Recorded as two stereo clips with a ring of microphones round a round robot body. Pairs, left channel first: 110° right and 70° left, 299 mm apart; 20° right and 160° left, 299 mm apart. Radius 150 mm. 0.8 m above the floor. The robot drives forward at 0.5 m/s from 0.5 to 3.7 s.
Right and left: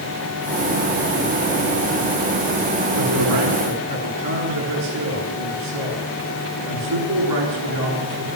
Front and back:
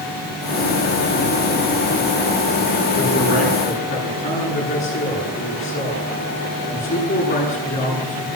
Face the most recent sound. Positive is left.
turn(degrees=45)